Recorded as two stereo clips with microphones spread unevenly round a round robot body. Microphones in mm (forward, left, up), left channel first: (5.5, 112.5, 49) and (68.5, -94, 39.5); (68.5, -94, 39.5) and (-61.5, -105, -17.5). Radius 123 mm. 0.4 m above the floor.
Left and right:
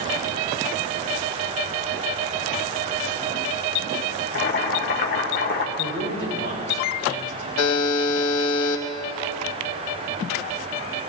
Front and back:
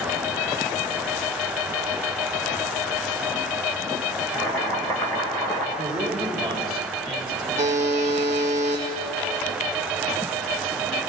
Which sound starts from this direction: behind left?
A buzzer, at 7.6 s.